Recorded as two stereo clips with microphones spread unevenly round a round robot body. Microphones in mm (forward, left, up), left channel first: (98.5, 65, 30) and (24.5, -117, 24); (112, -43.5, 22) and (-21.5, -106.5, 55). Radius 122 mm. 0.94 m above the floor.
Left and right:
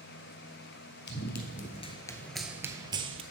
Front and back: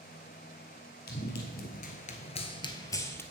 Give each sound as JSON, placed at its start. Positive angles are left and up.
{"t": 1.1, "sound": "running footsteps", "azimuth_deg": 65, "distance_m": 1.4}